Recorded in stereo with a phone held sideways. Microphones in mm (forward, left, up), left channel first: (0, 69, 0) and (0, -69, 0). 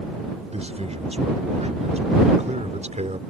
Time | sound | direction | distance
0.5 | a man speaking | 50° right (ahead or behind) | ?